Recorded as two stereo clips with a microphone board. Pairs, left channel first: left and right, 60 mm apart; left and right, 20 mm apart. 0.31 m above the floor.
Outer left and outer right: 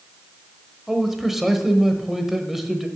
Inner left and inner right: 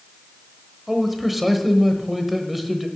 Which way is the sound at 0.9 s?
5° right (ahead or behind).